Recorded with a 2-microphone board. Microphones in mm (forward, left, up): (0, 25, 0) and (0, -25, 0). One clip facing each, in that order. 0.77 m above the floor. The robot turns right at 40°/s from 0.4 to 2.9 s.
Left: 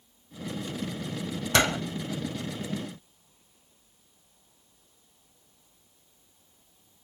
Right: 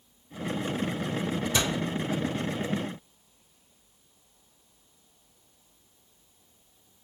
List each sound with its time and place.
1.5 s a door slam: 65° left (ahead or behind), 1.0 m; by 1.8 s 60° left (ahead or behind), 1.0 m